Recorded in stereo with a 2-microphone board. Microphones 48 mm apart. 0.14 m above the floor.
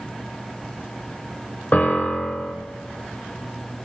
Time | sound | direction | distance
1.7 | a piano | 35° left (ahead or behind) | 2 m